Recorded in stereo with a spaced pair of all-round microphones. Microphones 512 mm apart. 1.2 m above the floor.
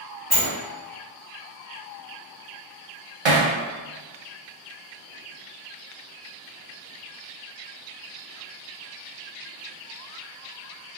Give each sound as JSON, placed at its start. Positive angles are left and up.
{"t": 0.3, "sound": "a sliding door", "side_deg": 30, "distance_m": 1.2}
{"t": 3.2, "sound": "hammering", "side_deg": -60, "distance_m": 0.6}